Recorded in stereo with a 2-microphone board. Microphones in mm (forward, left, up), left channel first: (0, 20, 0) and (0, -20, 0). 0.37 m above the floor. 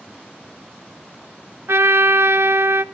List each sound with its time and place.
1.7 s a trumpet: 80° right, 0.5 m